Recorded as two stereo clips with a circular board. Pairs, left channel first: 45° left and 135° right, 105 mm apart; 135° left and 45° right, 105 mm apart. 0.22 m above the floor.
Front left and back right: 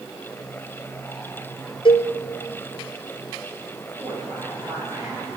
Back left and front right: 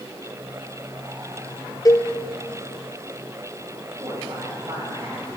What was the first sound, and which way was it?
A cowbell, 80° left.